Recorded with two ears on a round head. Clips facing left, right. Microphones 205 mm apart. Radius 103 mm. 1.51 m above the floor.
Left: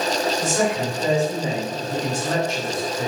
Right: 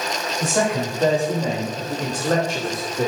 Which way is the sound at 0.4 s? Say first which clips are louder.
Even; 55° right (ahead or behind).